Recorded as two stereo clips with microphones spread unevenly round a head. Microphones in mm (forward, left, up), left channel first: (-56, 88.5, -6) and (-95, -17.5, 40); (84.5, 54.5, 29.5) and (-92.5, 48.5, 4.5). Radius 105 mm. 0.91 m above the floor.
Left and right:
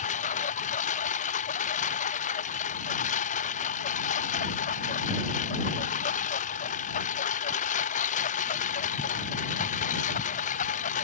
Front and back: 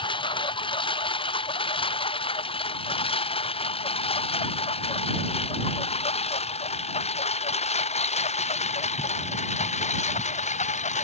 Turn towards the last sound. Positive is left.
turn(degrees=50)